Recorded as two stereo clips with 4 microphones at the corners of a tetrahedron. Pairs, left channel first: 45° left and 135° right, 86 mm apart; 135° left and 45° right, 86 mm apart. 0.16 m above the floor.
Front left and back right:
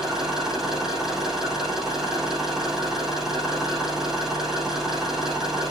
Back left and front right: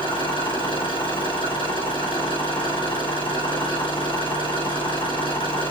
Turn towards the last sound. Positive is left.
turn(degrees=140)